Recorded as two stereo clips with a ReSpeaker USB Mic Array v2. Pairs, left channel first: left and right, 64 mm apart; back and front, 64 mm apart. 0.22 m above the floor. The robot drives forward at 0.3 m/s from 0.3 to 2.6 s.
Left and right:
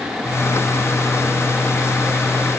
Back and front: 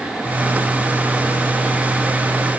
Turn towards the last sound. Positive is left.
No sound to turn to.